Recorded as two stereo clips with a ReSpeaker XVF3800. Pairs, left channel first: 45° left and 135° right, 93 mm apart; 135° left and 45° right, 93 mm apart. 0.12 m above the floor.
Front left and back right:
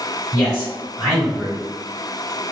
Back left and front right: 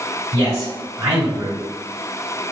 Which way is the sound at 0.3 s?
15° right.